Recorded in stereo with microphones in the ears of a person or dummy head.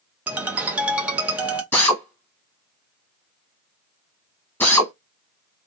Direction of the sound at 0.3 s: Centre (ahead or behind).